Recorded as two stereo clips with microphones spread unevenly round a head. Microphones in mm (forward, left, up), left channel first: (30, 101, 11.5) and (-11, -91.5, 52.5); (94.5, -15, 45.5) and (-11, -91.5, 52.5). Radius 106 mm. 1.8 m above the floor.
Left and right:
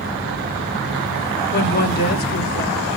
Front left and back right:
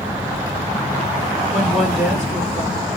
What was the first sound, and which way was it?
A woman speaking, 125° left.